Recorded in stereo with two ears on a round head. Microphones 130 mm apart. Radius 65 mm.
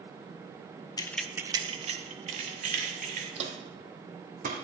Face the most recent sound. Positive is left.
turn(degrees=-60)  # may be behind; listen again after turning